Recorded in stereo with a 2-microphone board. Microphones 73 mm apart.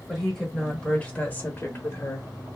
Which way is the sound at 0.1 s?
Centre (ahead or behind).